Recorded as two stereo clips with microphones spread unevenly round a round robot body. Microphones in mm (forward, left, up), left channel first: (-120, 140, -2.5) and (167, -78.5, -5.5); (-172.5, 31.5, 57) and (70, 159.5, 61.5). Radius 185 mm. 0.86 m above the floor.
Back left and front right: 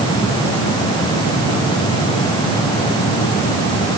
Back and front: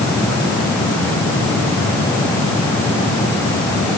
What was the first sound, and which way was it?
Only background noise.